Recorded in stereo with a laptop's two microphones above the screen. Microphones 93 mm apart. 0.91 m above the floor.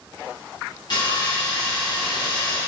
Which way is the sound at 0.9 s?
50° left (ahead or behind).